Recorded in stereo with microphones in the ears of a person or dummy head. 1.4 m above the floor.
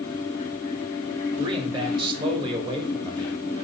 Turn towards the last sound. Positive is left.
turn(degrees=-30)  # may be behind; listen again after turning